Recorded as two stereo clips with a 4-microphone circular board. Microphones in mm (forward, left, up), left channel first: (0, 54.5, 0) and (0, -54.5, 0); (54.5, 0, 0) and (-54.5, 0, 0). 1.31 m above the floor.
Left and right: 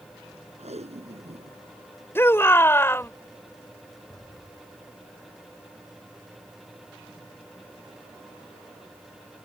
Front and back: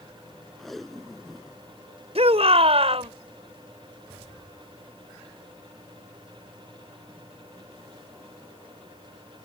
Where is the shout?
160° left.